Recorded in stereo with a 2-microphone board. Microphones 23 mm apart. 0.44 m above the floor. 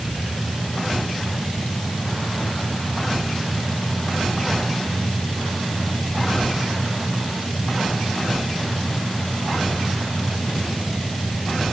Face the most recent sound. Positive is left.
No sound to turn to.